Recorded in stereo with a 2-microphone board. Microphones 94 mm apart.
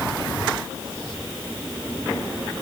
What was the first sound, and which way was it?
Only background noise.